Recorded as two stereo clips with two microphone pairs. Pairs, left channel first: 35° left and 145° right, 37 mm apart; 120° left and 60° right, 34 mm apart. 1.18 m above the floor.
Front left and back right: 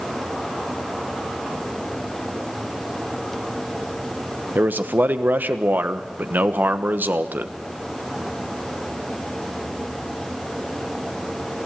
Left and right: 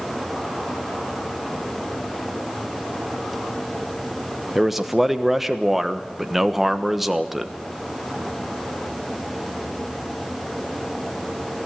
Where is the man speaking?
145° right, 1.2 m.